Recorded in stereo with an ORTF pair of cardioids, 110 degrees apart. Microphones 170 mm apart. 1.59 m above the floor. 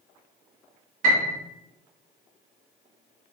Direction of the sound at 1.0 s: 55° right.